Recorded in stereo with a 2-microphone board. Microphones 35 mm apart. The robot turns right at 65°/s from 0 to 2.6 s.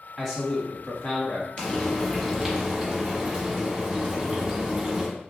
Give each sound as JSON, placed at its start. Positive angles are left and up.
{"t": 0.2, "sound": "a man speaking", "azimuth_deg": 0, "distance_m": 1.4}
{"t": 1.6, "sound": "frying", "azimuth_deg": 145, "distance_m": 1.4}